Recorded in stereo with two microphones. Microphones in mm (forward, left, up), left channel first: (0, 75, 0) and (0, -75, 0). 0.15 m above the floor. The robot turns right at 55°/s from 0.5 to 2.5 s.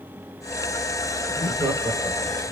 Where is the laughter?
20° right (ahead or behind), 1.1 m; by 2.5 s 5° right (ahead or behind), 1.1 m.